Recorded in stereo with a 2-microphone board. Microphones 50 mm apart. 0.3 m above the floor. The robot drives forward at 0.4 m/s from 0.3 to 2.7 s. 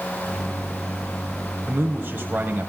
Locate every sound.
1.7 s a man speaking: 45° right (ahead or behind), 1.3 m; by 2.7 s 40° right (ahead or behind), 1.4 m